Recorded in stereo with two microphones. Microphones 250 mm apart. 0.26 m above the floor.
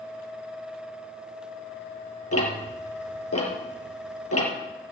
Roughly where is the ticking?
Left.